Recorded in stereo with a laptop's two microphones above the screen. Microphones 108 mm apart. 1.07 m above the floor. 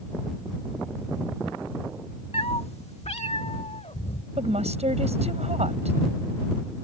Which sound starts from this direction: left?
A cat meowing, at 2.3 s.